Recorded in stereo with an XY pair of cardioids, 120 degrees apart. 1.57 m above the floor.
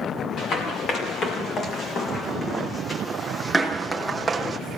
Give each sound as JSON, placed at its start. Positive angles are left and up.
{"t": 0.4, "sound": "running footsteps", "azimuth_deg": 55, "distance_m": 5.5}